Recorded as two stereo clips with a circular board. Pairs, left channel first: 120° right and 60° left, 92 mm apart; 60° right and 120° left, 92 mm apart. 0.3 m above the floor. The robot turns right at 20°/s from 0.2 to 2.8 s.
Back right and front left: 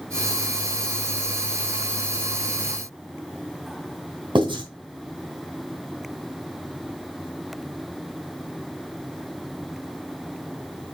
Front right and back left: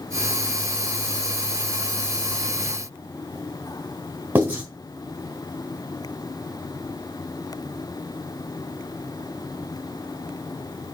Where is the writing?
55° left, 3 m.